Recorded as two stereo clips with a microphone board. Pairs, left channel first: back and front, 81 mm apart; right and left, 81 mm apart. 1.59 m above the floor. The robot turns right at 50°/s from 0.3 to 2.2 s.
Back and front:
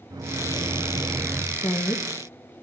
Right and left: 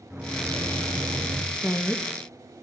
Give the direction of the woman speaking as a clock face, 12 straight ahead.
6 o'clock.